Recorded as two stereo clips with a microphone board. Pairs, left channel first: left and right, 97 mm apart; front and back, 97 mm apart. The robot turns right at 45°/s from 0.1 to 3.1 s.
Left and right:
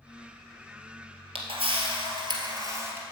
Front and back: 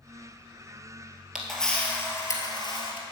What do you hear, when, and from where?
1.4 s a camera shutter: 95° right, 1.6 m; by 3.0 s 20° right, 1.6 m